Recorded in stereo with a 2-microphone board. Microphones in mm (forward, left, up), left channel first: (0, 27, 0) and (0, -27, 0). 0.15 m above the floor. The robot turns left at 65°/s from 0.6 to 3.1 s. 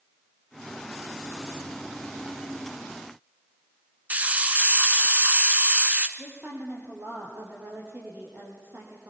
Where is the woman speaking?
45° right (ahead or behind), 4.5 m.